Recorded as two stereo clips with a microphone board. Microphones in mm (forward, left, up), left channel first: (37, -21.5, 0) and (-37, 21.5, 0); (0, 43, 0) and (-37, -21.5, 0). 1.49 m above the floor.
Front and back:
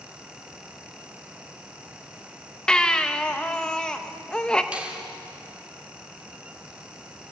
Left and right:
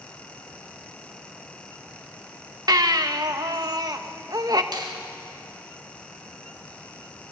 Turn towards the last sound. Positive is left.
turn(degrees=-135)